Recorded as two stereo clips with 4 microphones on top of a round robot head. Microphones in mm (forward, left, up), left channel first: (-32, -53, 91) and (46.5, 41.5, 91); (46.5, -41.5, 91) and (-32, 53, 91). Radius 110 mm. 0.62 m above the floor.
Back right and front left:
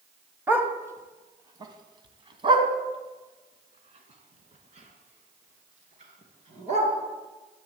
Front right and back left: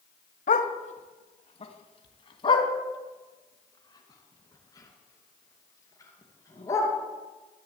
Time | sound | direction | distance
0.5 | a dog barking | 25° right | 1.5 m